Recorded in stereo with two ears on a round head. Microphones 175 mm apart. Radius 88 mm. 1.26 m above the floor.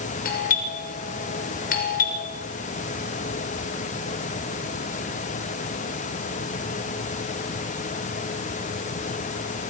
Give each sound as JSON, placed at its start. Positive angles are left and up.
{"t": 0.2, "sound": "a doorbell", "side_deg": 45, "distance_m": 7.0}